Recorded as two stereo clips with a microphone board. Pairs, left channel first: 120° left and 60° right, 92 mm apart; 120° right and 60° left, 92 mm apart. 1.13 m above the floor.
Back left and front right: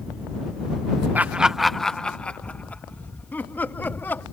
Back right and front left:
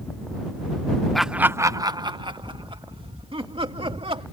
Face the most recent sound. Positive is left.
turn(degrees=50)